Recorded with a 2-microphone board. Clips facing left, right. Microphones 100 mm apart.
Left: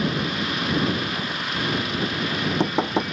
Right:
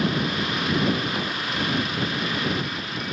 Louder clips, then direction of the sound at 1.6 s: Left 1 dB; 75° left (ahead or behind).